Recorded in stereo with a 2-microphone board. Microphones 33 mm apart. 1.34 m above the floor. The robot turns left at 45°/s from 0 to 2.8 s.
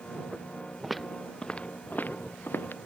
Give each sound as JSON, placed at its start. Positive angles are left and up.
{"t": 0.8, "sound": "footsteps", "side_deg": -5}